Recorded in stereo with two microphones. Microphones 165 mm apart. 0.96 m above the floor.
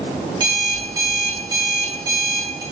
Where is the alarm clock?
25° right (ahead or behind), 1.7 m.